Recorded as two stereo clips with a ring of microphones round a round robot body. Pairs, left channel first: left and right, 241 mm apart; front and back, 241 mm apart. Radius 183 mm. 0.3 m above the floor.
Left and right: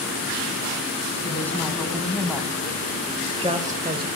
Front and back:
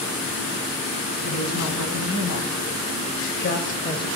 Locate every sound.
1.2 s a woman speaking: 10° left, 3 m; by 4.1 s 65° right, 1.2 m